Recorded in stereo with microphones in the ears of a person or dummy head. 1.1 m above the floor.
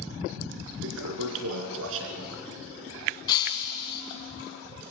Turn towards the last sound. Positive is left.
turn(degrees=25)  # may be behind; listen again after turning